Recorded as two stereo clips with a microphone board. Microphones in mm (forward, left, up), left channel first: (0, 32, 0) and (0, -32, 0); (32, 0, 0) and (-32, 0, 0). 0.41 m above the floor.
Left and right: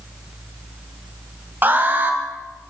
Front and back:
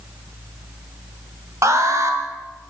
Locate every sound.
1.6 s an alarm: 145° right, 2 m